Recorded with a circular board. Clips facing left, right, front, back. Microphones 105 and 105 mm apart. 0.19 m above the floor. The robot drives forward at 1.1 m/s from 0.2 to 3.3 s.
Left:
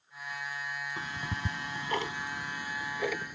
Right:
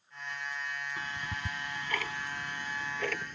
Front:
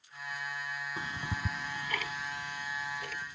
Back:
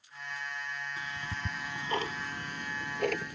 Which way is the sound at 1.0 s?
30° left.